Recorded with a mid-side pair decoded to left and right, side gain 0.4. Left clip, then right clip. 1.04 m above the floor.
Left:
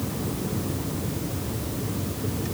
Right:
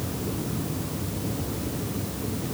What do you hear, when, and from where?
Only background noise.